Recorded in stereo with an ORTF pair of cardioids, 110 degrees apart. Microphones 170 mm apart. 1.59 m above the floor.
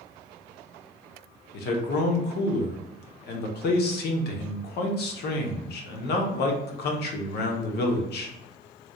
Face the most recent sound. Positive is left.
turn(degrees=65)